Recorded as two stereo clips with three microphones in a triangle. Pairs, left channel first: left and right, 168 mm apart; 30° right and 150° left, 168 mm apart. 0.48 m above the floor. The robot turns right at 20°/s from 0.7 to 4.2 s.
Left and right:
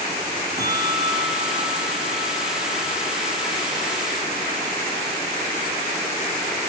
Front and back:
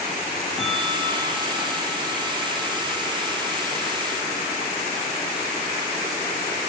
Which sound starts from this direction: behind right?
A bell, at 0.6 s.